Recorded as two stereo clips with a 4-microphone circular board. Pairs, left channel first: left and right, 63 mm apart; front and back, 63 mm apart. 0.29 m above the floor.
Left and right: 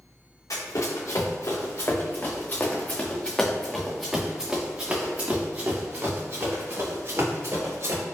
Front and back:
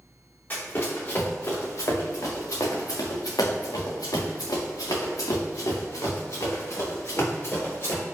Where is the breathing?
I don't hear breathing.